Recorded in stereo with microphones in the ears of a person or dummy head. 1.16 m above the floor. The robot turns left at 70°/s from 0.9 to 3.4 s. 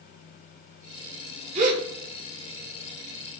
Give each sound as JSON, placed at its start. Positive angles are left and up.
{"t": 1.6, "sound": "a gasp", "side_deg": -40, "distance_m": 0.9}